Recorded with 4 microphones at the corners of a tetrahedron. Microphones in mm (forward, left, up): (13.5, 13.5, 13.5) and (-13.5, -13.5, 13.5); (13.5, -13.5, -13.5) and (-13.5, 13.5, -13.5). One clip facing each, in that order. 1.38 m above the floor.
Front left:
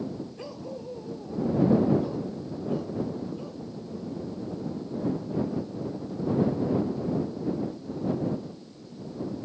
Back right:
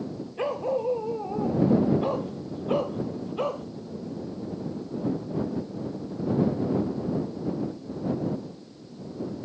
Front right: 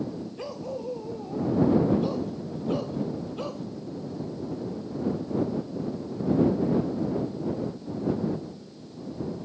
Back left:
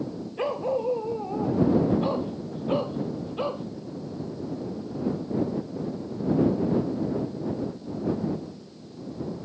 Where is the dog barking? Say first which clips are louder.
Back right 11 dB, back left 13 dB; straight behind; by 3.6 s 165° right.